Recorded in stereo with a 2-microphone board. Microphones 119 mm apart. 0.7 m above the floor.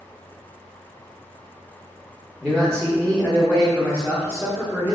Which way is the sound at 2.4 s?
5° left (ahead or behind).